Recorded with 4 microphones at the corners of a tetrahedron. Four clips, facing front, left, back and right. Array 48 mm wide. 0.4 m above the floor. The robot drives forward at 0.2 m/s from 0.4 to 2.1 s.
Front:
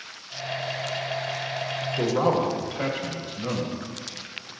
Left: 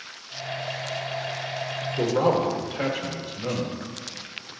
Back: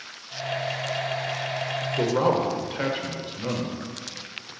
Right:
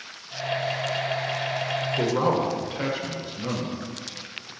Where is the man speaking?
165° left, 1.3 m.